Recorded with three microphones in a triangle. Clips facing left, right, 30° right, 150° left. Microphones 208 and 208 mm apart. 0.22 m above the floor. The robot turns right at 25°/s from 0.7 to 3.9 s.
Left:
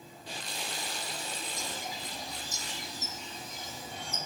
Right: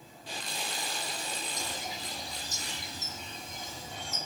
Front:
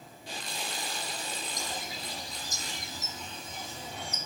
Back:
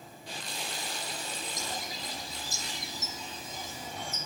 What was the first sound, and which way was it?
A bird, 100° right.